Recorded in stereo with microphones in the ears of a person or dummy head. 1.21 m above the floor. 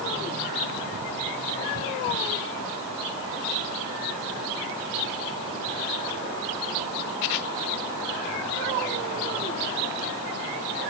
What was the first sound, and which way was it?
Only background noise.